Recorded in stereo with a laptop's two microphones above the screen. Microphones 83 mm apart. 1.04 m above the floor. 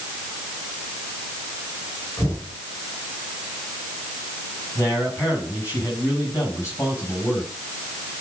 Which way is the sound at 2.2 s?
25° left (ahead or behind).